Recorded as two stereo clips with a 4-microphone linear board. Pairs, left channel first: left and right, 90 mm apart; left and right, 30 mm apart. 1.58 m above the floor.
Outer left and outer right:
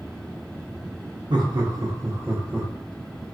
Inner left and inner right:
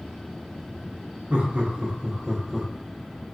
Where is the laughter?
55° right (ahead or behind), 0.8 m; by 2.7 s 15° right (ahead or behind), 1.1 m.